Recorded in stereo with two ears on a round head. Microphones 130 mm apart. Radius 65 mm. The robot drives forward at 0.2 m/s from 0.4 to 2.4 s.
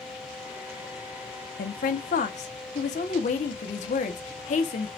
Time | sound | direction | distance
1.6 | a woman speaking | 60° left (ahead or behind) | 0.6 m